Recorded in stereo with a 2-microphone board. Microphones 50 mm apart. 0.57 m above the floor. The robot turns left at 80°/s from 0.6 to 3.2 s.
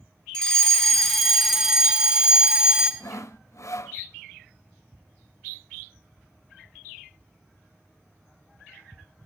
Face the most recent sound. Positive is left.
turn(degrees=75)  # may be behind; listen again after turning